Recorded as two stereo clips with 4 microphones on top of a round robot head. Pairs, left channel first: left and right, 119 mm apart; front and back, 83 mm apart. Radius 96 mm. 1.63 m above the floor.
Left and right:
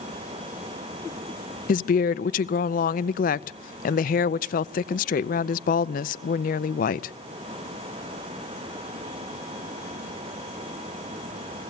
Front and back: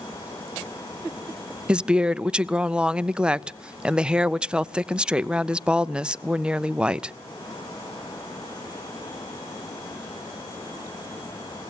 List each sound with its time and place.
1.7 s a woman speaking: 100° left, 0.5 m